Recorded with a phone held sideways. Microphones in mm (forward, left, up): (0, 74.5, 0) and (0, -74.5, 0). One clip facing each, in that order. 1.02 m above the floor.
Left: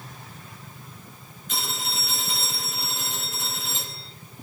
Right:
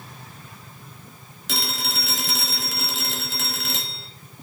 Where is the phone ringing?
85° right, 1.4 m.